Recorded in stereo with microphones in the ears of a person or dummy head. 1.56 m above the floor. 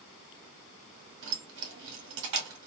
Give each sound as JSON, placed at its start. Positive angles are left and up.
{"t": 1.2, "sound": "keys jangling", "side_deg": -65, "distance_m": 1.7}